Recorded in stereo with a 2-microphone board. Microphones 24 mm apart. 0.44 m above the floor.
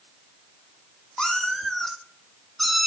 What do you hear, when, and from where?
1.2 s a cat meowing: 35° left (ahead or behind), 1.3 m; by 2.9 s centre (ahead or behind), 1.6 m